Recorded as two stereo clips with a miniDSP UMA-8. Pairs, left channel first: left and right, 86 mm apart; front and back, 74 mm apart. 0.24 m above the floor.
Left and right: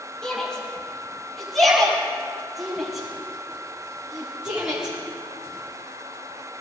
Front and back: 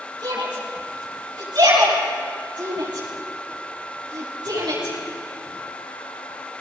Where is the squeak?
I don't hear a squeak.